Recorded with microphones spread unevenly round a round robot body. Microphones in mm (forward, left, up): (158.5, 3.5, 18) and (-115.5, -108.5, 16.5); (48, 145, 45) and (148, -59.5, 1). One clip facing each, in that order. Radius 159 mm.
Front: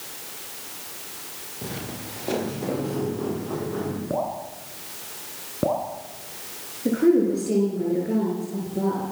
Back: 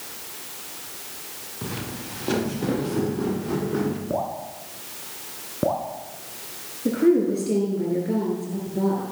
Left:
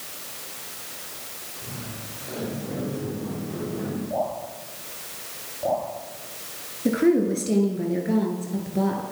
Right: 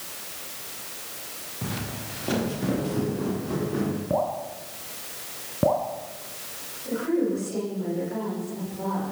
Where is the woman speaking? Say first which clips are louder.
Even, left 5 dB; 115° left, 8 m.